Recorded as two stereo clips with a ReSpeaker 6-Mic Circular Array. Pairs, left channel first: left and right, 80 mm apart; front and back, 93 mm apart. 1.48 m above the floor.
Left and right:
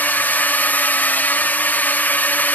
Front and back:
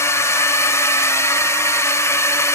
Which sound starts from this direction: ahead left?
A drone, at 0.0 s.